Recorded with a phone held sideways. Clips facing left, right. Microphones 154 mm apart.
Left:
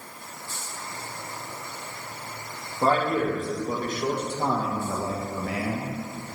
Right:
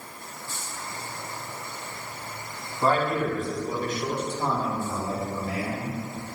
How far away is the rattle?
No rattle in this recording.